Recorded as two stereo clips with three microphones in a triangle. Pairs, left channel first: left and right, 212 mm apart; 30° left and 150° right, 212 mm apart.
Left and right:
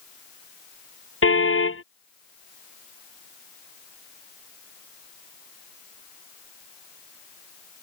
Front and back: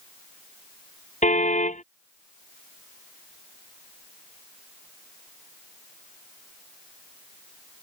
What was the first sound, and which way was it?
A car horn, 85° left.